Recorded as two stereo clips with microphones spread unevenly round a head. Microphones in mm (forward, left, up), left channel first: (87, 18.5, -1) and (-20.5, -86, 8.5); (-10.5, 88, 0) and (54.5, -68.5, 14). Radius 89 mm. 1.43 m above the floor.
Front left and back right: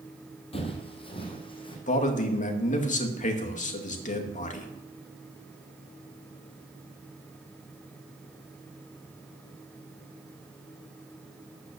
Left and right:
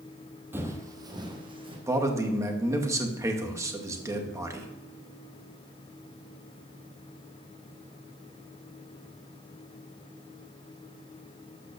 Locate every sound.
0.5 s footsteps: 5° left, 2 m; by 1.8 s 10° right, 3.5 m
1.9 s a man speaking: 5° left, 2.0 m